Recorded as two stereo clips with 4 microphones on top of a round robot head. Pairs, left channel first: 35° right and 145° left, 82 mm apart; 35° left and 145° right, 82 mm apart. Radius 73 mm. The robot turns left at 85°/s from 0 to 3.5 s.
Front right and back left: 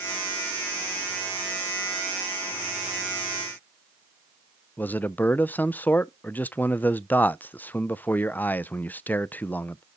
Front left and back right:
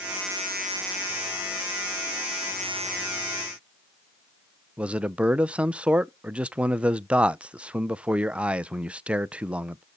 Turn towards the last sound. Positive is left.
turn(degrees=-80)